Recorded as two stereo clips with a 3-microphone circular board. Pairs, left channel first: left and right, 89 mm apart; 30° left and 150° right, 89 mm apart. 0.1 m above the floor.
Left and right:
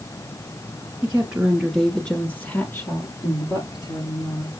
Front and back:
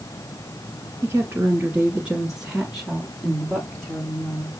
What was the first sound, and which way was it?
A woman speaking, 125° right.